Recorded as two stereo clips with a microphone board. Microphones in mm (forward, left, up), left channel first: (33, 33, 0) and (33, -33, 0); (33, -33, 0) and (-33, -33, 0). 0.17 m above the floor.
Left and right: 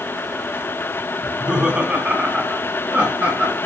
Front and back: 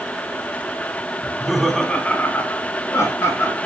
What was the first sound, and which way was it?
Laughter, 150° right.